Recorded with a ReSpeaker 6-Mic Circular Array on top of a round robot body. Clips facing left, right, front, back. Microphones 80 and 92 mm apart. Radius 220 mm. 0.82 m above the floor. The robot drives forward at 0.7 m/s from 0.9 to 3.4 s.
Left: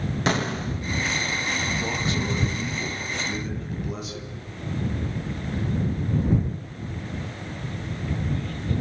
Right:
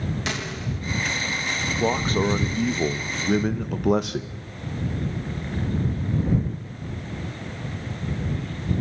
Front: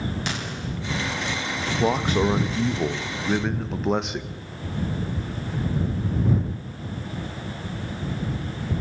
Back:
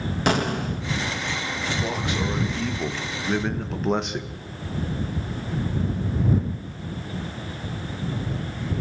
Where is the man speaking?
40° right, 1.7 m; by 4.4 s 90° right, 1.2 m.